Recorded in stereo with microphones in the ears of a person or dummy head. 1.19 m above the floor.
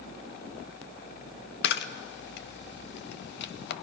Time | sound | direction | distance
1.6 | a camera shutter | 60° left (ahead or behind) | 1.1 m